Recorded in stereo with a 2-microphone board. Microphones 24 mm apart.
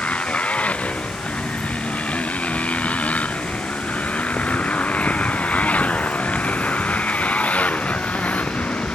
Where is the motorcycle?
70° left (ahead or behind); by 9.0 s 75° left (ahead or behind).